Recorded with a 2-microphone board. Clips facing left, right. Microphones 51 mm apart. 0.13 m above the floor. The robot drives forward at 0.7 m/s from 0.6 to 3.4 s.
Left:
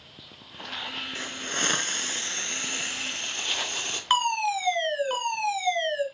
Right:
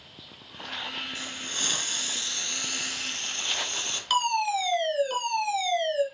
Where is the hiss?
40° left (ahead or behind), 0.8 m; by 4.0 s 20° left (ahead or behind), 1.4 m.